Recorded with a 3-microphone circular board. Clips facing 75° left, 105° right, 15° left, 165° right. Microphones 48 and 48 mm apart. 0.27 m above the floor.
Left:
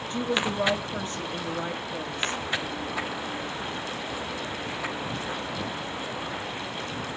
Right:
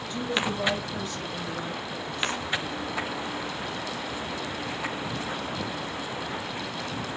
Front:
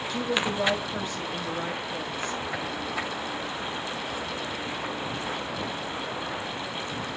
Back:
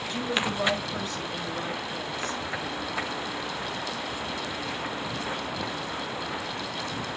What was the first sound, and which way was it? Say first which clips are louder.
A woman speaking: left 1 dB, front 1 dB; 90° left.